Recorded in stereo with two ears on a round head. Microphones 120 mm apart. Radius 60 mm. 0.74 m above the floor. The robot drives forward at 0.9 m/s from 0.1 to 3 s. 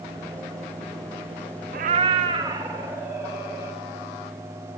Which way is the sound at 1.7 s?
70° right (ahead or behind).